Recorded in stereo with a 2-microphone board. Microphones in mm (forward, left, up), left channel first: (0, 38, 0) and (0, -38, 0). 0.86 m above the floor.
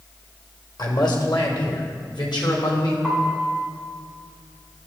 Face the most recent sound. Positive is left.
turn(degrees=5)  # may be behind; listen again after turning